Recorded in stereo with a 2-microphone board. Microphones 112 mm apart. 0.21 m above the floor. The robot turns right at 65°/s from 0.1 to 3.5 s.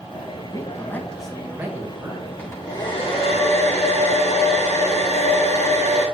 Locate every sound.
0.5 s a man speaking: 130° left, 1.6 m; by 2.3 s 115° right, 1.6 m
2.4 s a hair dryer: 15° left, 2 m; by 6.1 s 90° left, 2 m